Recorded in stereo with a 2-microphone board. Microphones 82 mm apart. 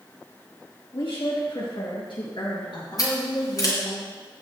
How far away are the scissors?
About 4 m.